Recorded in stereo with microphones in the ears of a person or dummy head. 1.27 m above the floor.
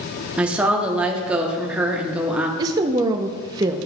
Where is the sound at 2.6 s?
30° right (ahead or behind), 0.6 m.